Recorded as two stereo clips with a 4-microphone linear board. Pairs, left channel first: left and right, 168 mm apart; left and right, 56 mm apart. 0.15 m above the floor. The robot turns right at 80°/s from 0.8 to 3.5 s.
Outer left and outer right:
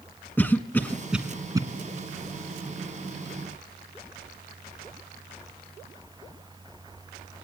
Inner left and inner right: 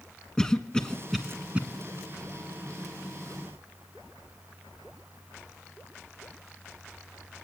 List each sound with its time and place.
0.4 s a cough: 10° left (ahead or behind), 1.2 m; by 1.6 s 25° right (ahead or behind), 1.2 m